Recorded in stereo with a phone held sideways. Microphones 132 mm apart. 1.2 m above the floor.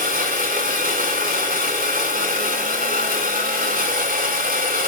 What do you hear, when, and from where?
0.0 s a machine running: 85° right, 3 m